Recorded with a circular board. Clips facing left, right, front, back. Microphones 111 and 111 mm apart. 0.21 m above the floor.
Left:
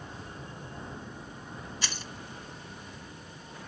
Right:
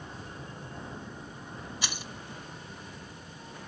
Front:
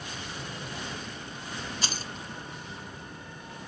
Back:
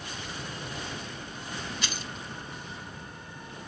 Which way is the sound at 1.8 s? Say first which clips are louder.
Right 1 dB, front 1 dB; 25° right.